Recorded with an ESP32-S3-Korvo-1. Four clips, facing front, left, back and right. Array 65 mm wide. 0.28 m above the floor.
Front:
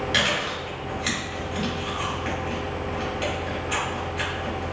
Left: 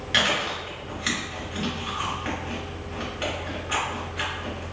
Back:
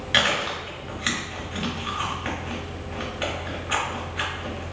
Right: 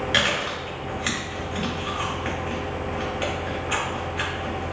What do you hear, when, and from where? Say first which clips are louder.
0.1 s chewing: left 2 dB, back 4 dB; 175° right, 1.5 m